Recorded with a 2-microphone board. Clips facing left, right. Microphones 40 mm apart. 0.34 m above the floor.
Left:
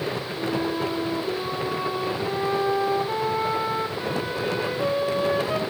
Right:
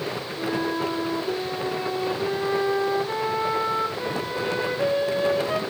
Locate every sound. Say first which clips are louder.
0.4 s a flute: right 1 dB; 10° left (ahead or behind), 3 m